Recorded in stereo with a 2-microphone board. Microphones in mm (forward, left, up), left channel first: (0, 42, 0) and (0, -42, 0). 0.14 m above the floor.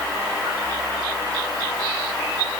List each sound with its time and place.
Only background noise.